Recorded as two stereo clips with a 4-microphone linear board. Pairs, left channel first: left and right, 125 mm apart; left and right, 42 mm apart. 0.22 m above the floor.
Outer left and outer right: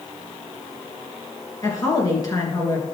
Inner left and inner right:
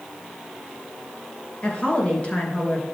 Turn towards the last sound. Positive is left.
turn(degrees=30)  # may be behind; listen again after turning